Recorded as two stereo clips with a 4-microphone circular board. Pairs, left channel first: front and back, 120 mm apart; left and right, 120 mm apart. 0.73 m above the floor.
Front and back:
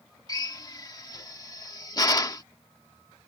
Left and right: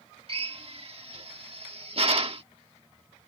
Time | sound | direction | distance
0.3 | a drill | 55° right | ?